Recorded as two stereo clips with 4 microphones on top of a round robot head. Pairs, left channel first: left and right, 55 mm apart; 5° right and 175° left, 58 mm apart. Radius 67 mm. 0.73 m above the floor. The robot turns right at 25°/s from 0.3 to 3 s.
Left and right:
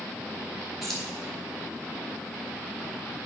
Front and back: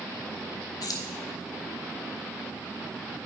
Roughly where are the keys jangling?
Ahead.